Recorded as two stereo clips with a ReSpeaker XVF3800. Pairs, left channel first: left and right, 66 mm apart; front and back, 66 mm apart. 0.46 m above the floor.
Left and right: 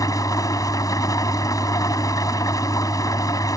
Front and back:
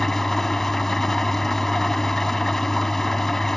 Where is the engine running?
85° left.